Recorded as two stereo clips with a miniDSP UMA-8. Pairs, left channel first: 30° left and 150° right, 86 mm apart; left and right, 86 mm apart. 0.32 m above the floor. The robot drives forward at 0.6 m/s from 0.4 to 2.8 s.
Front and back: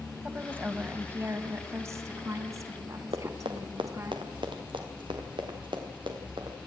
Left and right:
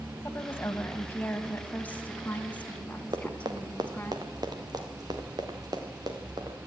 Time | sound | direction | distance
0.2 | a woman speaking | 145° left | 2 m
3.1 | running footsteps | 130° right | 3 m